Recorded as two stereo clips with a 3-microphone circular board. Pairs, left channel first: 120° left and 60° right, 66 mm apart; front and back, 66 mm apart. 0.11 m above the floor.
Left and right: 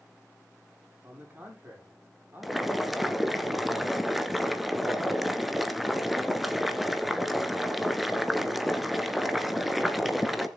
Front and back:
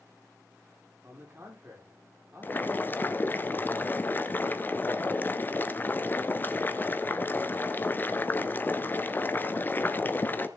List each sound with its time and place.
1.0 s a man speaking: 125° right, 6.5 m
2.4 s boiling: 25° left, 1.4 m